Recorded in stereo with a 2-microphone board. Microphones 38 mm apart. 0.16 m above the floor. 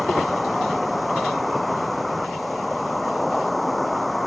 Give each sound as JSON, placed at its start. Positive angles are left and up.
{"t": 0.0, "sound": "an insect", "side_deg": 0}